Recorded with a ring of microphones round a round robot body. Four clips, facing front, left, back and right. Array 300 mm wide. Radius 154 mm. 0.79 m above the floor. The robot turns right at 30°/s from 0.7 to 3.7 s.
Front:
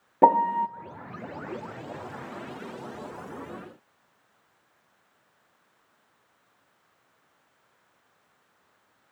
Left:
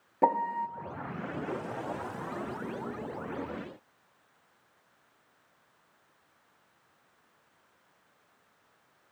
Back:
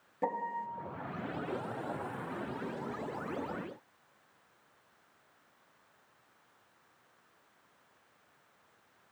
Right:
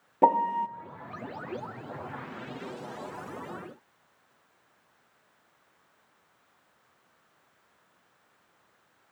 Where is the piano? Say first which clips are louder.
Right 4 dB, front 16 dB; 10° right, 1.1 m.